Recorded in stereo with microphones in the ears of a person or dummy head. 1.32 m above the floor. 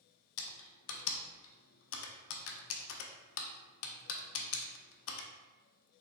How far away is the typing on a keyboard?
About 0.6 m.